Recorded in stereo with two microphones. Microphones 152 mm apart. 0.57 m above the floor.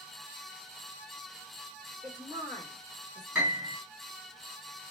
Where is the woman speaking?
30° right (ahead or behind), 1.3 m.